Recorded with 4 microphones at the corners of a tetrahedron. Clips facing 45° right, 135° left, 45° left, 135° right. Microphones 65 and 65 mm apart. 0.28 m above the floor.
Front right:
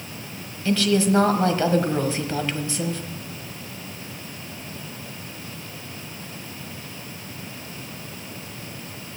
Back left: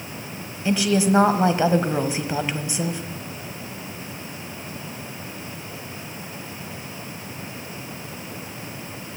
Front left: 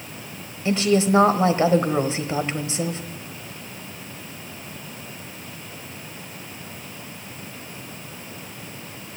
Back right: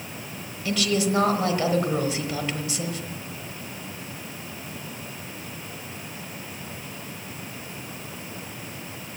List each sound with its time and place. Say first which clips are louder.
0.7 s a woman speaking: even, front left 5 dB; 75° left, 1.2 m